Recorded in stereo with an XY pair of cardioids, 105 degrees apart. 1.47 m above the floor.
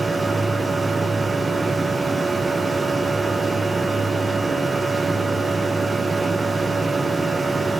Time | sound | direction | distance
0.0 | a machine running | 20° right | 1.0 m